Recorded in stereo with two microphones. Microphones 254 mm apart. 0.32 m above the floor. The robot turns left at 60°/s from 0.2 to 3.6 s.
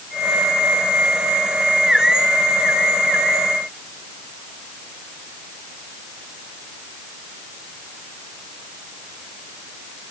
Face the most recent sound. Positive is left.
No sound to turn to.